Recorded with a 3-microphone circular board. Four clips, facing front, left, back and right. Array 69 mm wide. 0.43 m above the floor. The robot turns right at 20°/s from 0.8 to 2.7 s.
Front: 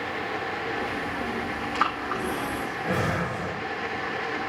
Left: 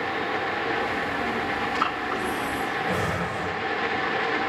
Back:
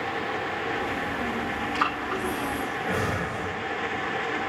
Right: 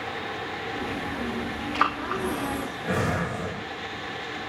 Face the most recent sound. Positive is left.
turn(degrees=-50)